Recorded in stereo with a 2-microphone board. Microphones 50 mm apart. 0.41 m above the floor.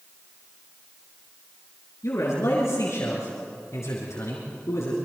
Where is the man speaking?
70° left (ahead or behind), 5 m.